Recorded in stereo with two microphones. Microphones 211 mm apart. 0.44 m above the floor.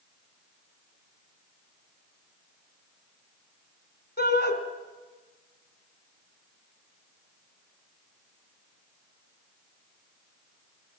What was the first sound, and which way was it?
A shout, 50° left (ahead or behind).